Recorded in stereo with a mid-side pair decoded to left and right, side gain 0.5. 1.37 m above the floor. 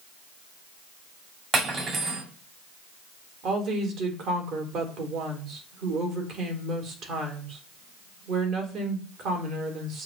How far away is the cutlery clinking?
About 2 m.